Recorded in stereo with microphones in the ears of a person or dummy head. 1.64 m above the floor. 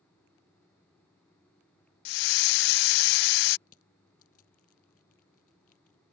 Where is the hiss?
60° left (ahead or behind).